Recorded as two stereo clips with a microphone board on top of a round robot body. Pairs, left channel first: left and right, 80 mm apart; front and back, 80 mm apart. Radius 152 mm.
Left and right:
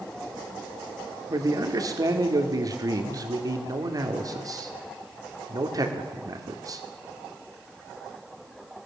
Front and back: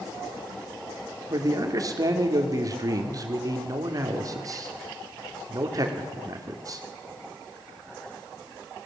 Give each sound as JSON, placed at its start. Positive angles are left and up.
{"t": 1.3, "sound": "a man speaking", "azimuth_deg": -135, "distance_m": 2.5}